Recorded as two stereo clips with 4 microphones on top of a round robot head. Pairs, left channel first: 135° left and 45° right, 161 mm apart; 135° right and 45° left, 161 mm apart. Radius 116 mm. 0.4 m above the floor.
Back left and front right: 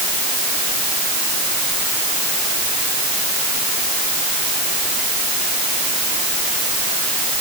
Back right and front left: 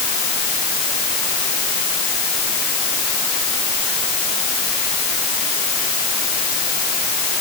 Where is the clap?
No clap in this recording.